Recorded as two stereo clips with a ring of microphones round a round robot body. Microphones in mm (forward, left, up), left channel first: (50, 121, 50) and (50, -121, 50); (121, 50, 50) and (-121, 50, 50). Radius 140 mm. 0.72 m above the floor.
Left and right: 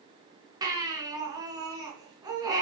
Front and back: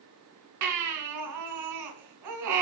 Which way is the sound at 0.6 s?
165° right.